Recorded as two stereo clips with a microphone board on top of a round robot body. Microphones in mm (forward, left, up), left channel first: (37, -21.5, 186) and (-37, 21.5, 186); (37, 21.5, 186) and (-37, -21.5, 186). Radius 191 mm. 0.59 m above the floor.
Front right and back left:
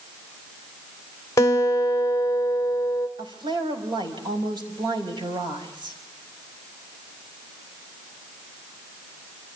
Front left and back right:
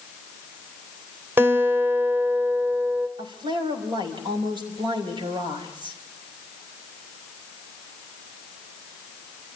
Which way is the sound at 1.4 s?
85° right.